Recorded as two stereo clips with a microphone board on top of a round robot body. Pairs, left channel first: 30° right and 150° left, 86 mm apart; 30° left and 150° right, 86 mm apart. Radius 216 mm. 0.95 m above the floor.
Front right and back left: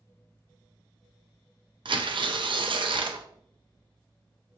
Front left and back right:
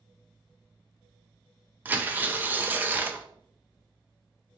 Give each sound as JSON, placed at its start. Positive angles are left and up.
{"t": 1.9, "sound": "tearing paper", "azimuth_deg": 140, "distance_m": 0.7}